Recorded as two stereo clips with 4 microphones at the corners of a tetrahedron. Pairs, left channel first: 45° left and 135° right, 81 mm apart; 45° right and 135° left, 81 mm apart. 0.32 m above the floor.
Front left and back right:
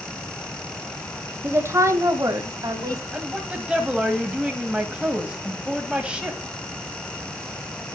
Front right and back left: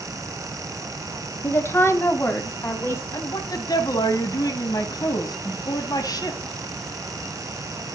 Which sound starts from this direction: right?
A woman speaking, at 1.4 s.